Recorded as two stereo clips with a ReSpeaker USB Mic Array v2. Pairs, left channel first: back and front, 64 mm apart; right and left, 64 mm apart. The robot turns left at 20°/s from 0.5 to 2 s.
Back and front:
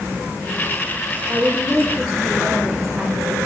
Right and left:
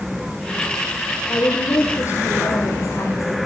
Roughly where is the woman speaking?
Right.